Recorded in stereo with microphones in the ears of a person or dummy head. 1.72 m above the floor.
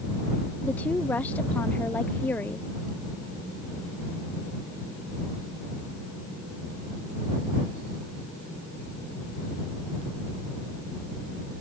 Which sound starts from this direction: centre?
A woman speaking, at 0.6 s.